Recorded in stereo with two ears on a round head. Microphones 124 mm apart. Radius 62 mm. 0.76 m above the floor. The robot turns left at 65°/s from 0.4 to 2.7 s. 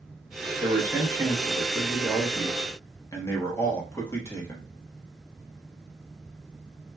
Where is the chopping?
I don't hear chopping.